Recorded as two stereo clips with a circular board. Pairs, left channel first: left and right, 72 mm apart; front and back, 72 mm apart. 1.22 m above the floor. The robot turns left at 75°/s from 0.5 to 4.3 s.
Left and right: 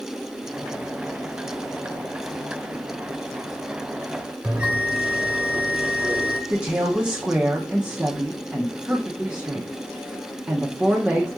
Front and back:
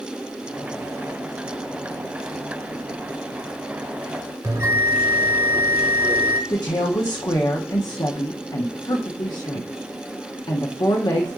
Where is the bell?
155° right, 0.9 m.